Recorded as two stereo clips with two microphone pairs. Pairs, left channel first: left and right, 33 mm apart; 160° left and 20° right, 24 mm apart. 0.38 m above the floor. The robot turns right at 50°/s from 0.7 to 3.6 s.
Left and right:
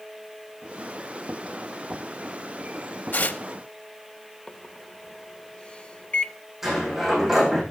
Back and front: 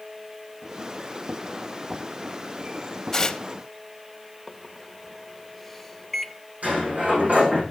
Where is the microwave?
90° left, 0.7 m.